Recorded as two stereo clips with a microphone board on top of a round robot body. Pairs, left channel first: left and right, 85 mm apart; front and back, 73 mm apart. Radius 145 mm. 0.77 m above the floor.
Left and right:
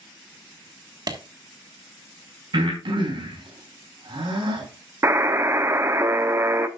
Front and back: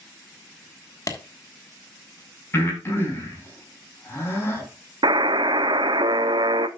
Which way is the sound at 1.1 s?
45° right.